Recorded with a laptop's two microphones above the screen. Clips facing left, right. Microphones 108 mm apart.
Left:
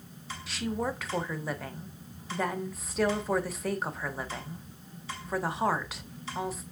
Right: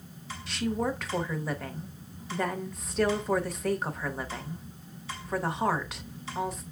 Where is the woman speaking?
Centre (ahead or behind), 0.5 m.